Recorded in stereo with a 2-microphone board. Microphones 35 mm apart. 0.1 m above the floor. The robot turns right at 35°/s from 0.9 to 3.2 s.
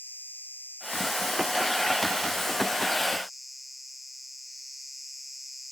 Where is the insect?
105° left; by 5.7 s 175° right.